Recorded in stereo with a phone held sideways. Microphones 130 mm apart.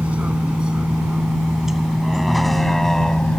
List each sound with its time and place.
0.0 s a vehicle: 10° right (ahead or behind); by 3.4 s 5° left (ahead or behind)